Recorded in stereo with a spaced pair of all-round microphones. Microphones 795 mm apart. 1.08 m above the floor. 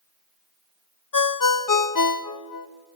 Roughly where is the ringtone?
Left.